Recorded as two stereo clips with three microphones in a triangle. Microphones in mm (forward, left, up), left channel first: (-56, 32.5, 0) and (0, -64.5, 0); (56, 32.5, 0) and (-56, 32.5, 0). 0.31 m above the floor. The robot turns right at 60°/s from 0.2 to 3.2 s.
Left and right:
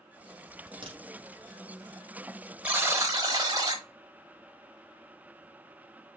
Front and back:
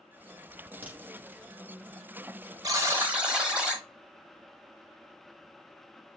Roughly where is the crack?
Right.